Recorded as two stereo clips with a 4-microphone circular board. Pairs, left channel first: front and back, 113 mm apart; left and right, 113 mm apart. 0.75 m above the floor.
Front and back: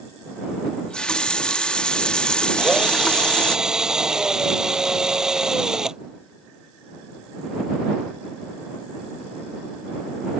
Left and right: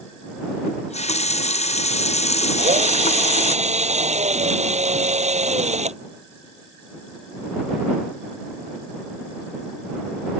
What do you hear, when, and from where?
0.7 s a running tap: 80° left
2.6 s a drill: 95° right